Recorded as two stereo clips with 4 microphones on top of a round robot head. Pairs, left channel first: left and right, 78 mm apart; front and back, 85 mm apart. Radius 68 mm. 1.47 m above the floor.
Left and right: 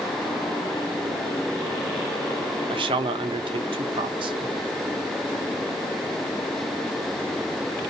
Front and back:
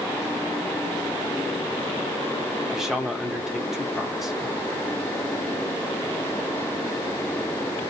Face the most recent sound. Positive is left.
turn(degrees=-90)